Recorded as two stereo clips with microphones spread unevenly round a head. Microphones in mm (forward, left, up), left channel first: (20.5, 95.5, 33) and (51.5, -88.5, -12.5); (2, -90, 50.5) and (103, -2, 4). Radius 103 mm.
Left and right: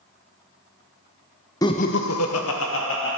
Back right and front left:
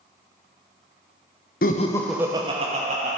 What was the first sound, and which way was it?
Laughter, straight behind.